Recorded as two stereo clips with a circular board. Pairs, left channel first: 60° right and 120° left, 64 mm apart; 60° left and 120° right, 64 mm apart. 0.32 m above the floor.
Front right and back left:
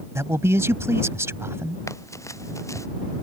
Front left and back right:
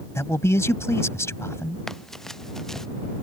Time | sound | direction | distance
0.1 | a man speaking | 85° left | ?
1.9 | running footsteps | 20° right | ?